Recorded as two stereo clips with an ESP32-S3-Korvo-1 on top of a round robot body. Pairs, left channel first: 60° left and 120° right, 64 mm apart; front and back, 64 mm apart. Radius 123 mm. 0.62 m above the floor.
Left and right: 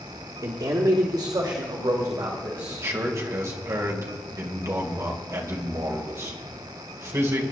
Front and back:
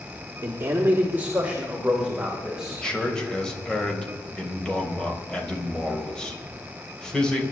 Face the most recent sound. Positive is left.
turn(degrees=-75)